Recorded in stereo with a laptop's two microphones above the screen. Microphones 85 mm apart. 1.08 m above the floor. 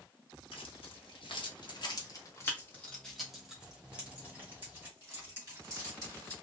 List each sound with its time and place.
0.5 s keys jangling: 85° left, 1.2 m; by 6.3 s 35° right (ahead or behind), 2.5 m